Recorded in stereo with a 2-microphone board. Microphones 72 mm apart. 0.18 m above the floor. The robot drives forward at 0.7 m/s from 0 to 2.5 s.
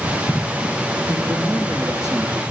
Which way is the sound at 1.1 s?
50° right (ahead or behind).